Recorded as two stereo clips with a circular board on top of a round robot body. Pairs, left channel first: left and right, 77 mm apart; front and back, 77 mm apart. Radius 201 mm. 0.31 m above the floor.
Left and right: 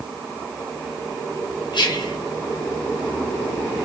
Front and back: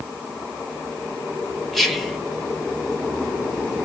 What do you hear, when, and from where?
1.7 s whispering: 90° left, 1.7 m